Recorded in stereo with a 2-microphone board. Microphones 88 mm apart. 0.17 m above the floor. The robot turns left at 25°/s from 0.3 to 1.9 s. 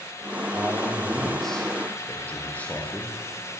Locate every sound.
0.5 s a man speaking: 160° right, 7 m; by 3.2 s 165° left, 7 m